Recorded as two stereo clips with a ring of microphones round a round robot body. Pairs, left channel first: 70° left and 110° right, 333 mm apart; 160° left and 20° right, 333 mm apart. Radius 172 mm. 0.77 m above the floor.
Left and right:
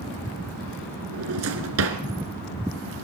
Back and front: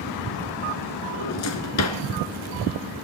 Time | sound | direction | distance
1.1 | a drawer | 160° right | 2.5 m